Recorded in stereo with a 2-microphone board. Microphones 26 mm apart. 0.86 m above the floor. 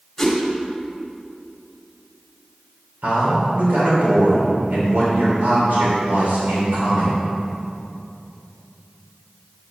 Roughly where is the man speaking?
Right.